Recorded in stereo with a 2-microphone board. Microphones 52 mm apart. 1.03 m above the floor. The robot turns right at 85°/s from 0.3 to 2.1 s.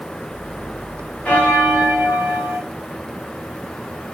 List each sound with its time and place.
1.2 s a bell: 30° left, 1.4 m; by 2.6 s 100° left, 1.4 m